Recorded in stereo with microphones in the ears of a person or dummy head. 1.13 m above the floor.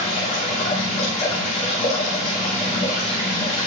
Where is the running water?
35° left (ahead or behind), 1.7 m.